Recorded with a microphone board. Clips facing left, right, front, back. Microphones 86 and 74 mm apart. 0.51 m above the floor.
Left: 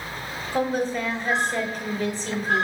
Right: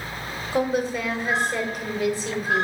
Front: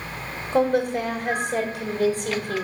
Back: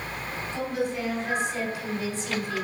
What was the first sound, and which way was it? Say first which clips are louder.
A woman speaking: right 1 dB, front 9 dB; 5° right.